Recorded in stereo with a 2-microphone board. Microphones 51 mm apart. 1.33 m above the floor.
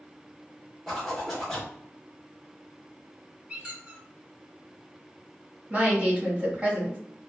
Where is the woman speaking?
30° right (ahead or behind), 1.6 m.